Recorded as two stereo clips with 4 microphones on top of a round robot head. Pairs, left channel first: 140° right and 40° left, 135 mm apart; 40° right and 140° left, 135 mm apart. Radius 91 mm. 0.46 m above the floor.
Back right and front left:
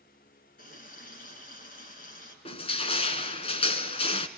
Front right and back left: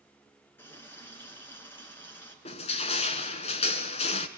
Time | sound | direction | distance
0.6 | a running tap | 120° right | 4.5 m
2.5 | crushing | 90° right | 1.4 m